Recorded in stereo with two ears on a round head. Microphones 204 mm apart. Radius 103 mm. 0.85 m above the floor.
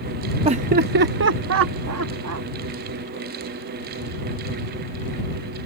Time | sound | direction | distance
0.5 | laughter | 25° right (ahead or behind) | ?